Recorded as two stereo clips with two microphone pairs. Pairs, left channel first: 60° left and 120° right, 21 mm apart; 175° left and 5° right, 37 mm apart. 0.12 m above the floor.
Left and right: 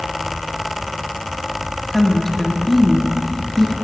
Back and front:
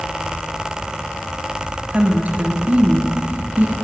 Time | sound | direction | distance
1.9 | a woman speaking | 15° right | 1.7 m